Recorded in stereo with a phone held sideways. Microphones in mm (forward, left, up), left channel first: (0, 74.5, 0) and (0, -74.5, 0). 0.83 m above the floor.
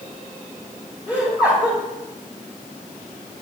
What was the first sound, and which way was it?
Laughter, 20° right (ahead or behind).